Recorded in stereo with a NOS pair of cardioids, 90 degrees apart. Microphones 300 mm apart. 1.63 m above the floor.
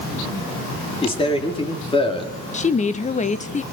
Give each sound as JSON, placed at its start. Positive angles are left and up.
{"t": 1.0, "sound": "a man speaking", "azimuth_deg": 20, "distance_m": 4.5}
{"t": 2.5, "sound": "a woman speaking", "azimuth_deg": 25, "distance_m": 1.7}